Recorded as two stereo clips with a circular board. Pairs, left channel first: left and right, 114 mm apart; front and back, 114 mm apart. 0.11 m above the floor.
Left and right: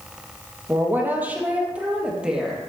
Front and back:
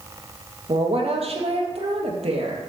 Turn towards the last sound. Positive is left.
turn(degrees=-175)